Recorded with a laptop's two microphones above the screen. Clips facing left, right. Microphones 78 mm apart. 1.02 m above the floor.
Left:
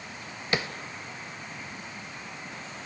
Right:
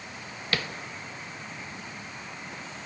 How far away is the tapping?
About 1.0 m.